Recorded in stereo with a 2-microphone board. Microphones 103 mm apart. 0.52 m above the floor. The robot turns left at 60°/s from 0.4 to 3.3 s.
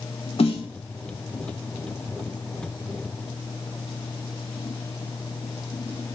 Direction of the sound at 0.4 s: 70° left (ahead or behind).